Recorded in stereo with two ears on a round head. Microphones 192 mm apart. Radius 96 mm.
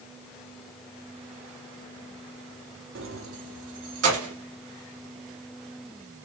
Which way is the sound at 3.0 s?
60° right (ahead or behind).